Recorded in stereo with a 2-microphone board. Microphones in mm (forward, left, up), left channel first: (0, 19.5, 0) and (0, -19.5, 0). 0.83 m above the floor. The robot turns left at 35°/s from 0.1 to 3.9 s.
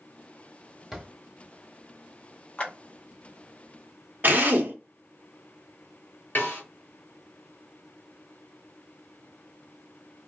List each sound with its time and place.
0.9 s a drawer: 10° right (ahead or behind), 0.9 m; by 1.1 s 15° right (ahead or behind), 0.9 m
2.6 s a clap: 35° left (ahead or behind), 1.0 m; by 2.7 s 30° left (ahead or behind), 1.0 m
4.2 s a drill: 55° right (ahead or behind), 0.7 m
6.3 s a snare drum: 60° left (ahead or behind), 1.5 m